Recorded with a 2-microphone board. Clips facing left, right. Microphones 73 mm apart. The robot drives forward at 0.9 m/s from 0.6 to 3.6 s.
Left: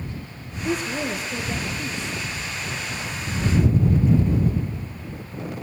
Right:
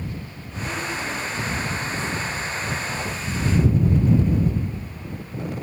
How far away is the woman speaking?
About 3.5 m.